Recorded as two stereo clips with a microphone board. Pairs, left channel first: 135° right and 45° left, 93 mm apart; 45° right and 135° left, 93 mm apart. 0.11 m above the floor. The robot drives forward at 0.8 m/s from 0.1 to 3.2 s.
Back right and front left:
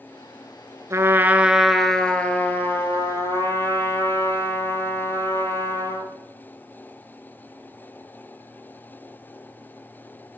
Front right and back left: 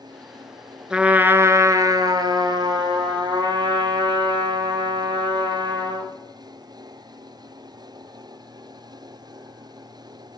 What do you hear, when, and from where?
0.9 s a trumpet: 60° left, 0.9 m; by 6.1 s 165° left, 1.8 m